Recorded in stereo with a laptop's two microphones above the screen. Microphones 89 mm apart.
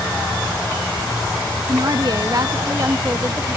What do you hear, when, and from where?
1.7 s a woman speaking: 55° right (ahead or behind); by 3.6 s 30° right (ahead or behind)